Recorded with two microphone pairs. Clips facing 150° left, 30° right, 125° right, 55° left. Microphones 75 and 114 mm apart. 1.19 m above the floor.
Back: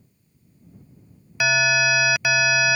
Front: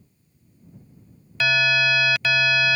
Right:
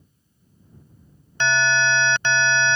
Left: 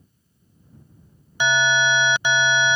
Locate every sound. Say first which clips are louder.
1.4 s an alarm: back 1 dB, left 1 dB; 115° left